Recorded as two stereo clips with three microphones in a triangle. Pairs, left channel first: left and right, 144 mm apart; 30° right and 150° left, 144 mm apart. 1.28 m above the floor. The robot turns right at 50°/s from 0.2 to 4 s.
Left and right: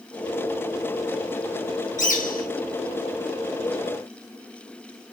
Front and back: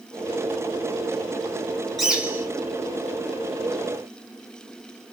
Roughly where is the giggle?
I don't hear a giggle.